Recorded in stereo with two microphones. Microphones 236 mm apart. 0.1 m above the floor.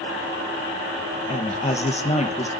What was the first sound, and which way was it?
A woman speaking, 30° left (ahead or behind).